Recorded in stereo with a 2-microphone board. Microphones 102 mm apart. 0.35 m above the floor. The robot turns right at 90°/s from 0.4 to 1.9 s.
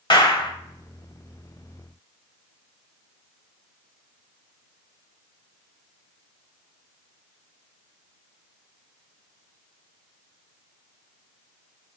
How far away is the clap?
About 1.0 m.